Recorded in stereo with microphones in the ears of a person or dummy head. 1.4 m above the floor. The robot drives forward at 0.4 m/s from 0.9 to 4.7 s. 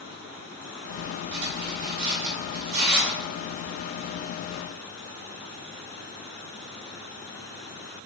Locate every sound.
1.3 s cutlery clinking: 60° right (ahead or behind), 1.2 m; by 3.2 s 50° right (ahead or behind), 1.4 m